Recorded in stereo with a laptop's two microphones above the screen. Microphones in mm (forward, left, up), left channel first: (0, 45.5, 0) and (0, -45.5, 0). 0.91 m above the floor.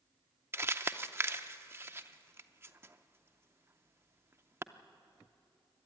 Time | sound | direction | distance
0.5 | crumpling | 25° right (ahead or behind) | 0.6 m